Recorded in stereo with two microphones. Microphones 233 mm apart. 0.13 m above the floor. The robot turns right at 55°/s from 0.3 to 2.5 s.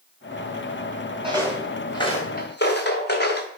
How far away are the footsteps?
About 2.5 m.